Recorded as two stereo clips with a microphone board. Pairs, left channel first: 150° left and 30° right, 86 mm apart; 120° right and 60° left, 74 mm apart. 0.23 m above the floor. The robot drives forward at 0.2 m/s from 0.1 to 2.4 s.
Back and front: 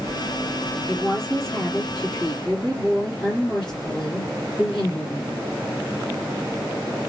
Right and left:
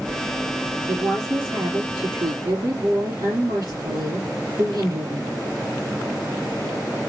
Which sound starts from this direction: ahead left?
A woman speaking, at 0.9 s.